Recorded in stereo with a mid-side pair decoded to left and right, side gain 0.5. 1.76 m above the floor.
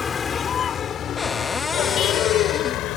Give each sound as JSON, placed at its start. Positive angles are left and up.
{"t": 0.0, "sound": "a vehicle", "azimuth_deg": 35}
{"t": 1.2, "sound": "a cupboard door", "azimuth_deg": 25}